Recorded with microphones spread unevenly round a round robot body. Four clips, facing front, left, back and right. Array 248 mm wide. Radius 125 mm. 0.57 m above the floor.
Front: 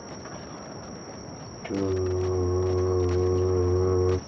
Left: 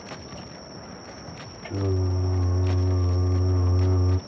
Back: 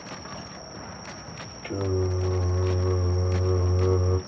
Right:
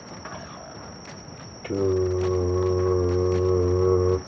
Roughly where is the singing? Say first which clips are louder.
Right 7 dB, front 1 dB; right.